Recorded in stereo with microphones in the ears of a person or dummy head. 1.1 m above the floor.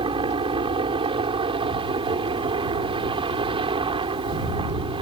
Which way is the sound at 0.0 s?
30° right (ahead or behind).